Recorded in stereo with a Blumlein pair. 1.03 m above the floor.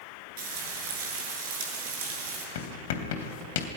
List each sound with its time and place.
0.4 s frying: 50° right, 6 m
2.5 s writing: 55° left, 3 m